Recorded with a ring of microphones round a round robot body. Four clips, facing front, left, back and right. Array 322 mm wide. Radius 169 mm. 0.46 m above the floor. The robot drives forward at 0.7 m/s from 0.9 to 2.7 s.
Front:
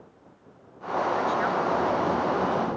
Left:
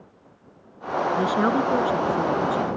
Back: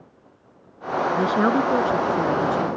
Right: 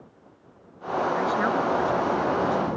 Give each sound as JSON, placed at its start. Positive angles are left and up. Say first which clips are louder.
{"t": 1.1, "sound": "a woman speaking", "louder": "left 5 dB, back 5 dB", "azimuth_deg": 155}